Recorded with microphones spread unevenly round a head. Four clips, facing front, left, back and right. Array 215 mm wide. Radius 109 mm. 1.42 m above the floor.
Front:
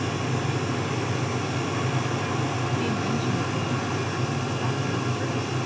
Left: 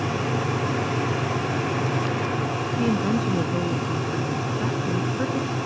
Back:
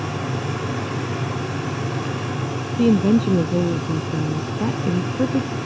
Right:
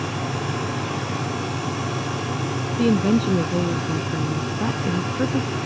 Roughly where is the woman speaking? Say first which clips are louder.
Right 5 dB, back 15 dB; behind.